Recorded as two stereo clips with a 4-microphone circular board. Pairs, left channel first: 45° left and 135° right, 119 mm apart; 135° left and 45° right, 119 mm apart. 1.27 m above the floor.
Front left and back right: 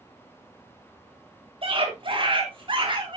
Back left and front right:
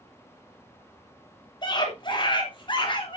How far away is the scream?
About 3 m.